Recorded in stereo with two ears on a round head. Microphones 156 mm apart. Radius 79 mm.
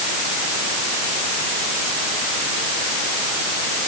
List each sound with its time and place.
Only background noise.